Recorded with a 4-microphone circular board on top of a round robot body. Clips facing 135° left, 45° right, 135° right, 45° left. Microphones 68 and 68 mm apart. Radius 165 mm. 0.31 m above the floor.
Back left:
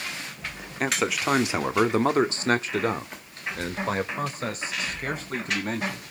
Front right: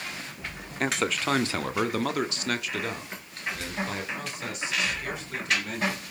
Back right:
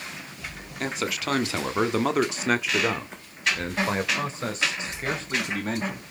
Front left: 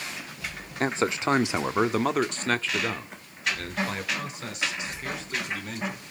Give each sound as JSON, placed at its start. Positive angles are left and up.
{"t": 0.8, "sound": "a man speaking", "azimuth_deg": 50, "distance_m": 1.6}